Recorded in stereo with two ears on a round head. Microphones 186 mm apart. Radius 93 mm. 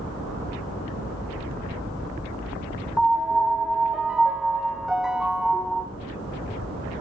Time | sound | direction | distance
3.0 | a piano | centre (ahead or behind) | 0.6 m